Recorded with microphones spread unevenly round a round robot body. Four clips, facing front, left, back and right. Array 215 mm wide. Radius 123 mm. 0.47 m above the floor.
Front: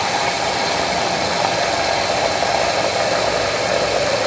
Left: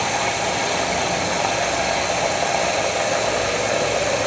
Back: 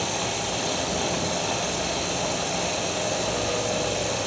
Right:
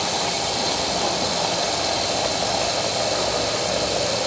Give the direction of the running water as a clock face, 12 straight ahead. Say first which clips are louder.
Left 3 dB, front 9 dB; 11 o'clock.